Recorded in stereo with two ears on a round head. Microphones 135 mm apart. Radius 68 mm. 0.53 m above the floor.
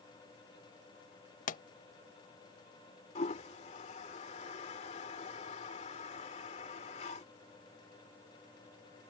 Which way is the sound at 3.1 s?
45° left (ahead or behind).